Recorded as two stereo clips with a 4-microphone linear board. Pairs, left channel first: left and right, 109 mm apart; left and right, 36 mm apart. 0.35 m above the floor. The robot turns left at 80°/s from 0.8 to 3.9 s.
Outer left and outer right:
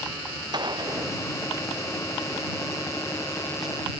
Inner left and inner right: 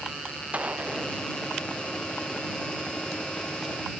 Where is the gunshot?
45° right (ahead or behind); by 3.8 s 15° right (ahead or behind).